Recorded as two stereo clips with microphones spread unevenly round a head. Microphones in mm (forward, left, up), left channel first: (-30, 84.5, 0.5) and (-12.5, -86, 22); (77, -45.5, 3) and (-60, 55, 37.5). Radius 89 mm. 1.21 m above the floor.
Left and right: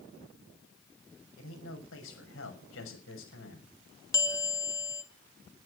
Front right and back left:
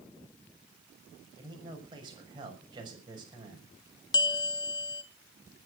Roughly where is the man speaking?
Left.